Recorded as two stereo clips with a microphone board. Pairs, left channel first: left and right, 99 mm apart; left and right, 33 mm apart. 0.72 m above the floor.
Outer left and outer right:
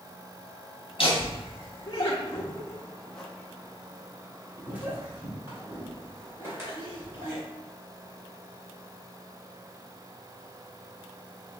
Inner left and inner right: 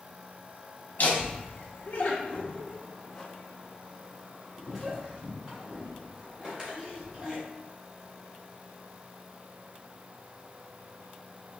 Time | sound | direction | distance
1.0 | laughter | 55° left (ahead or behind) | 0.9 m